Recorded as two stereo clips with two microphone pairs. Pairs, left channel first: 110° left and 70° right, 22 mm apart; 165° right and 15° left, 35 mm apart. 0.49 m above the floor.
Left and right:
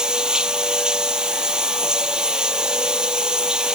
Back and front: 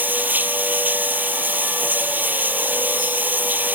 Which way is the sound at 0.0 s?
10° right.